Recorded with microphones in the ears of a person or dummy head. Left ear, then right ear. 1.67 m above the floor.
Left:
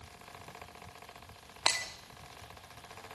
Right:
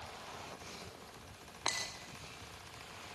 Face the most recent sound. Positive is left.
turn(degrees=15)  # may be behind; listen again after turning